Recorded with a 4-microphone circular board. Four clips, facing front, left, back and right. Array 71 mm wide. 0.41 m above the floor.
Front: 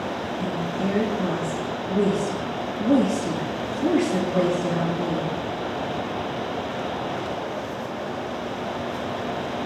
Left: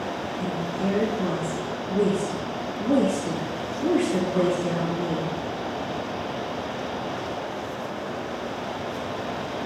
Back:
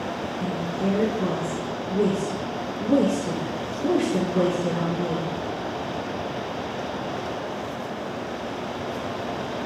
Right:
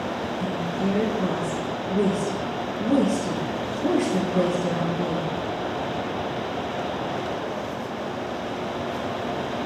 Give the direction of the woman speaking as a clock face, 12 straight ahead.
11 o'clock.